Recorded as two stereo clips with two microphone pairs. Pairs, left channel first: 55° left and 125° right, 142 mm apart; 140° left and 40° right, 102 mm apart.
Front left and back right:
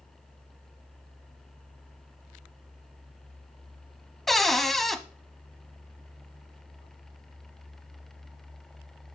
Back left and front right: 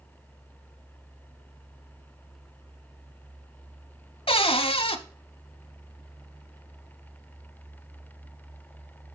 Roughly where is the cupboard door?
Behind left.